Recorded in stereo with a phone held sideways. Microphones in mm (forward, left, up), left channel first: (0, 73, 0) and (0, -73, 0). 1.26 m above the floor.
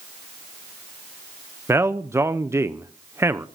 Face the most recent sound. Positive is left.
turn(degrees=-20)  # may be behind; listen again after turning